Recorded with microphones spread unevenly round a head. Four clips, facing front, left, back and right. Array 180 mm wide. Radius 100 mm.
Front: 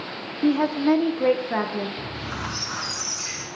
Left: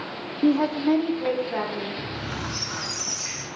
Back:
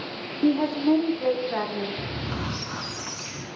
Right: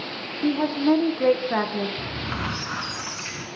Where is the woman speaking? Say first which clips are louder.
Left 1 dB, front 1 dB; 110° left, 0.7 m; by 1.9 s 55° right, 1.5 m.